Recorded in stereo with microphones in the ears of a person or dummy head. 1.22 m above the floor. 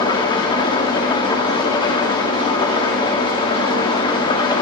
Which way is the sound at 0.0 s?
25° left (ahead or behind).